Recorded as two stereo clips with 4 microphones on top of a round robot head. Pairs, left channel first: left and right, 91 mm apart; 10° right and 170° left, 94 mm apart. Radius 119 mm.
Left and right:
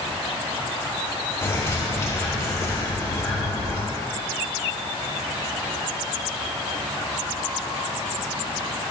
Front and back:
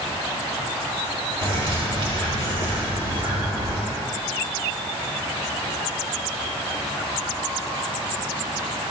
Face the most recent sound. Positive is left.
turn(degrees=150)